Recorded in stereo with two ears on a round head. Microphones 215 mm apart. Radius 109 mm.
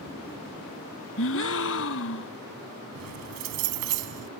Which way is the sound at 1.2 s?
55° left (ahead or behind).